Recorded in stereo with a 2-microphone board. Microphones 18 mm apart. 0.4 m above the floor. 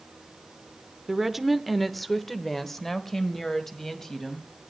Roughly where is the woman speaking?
Centre.